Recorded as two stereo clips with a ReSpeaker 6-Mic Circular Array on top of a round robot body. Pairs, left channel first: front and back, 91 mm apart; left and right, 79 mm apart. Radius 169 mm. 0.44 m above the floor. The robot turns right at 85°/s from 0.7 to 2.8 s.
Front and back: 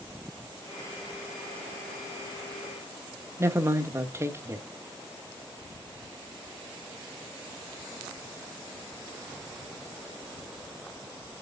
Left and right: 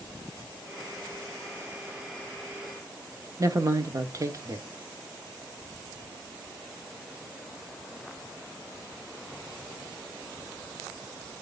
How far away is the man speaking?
About 1.7 m.